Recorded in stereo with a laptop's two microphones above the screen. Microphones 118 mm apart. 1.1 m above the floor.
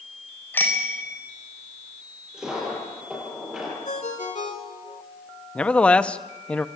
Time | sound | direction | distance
0.5 | a bicycle bell | 15° left (ahead or behind) | 4 m
2.3 | a dropped coin | 5° right (ahead or behind) | 9.5 m
3.9 | a ringtone | 85° left | 3 m
5.5 | a man speaking | 10° left (ahead or behind) | 0.7 m